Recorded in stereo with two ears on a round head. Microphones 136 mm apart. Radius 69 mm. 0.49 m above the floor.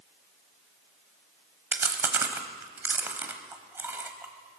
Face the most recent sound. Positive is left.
turn(degrees=-15)  # may be behind; listen again after turning